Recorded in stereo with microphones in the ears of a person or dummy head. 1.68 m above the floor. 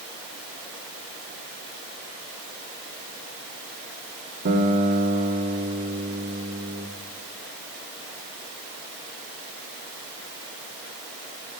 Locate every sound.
4.5 s a guitar: 50° right (ahead or behind), 2.5 m